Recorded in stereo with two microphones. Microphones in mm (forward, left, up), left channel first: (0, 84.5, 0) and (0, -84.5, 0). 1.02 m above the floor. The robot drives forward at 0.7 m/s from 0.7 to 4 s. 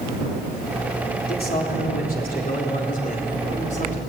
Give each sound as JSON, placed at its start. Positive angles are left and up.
{"t": 1.3, "sound": "a man speaking", "side_deg": 65, "distance_m": 3.5}